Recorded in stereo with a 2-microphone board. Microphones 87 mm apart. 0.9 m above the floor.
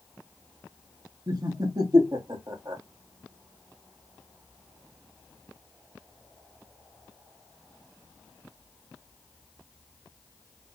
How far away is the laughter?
About 1.1 m.